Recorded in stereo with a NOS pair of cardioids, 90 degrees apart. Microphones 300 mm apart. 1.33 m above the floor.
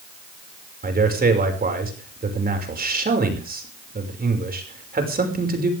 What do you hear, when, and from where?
0.8 s a man speaking: 30° right, 5.5 m